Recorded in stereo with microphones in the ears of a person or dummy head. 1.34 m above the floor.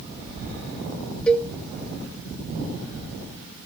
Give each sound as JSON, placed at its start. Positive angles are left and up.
{"t": 1.3, "sound": "a cowbell", "side_deg": 5, "distance_m": 1.3}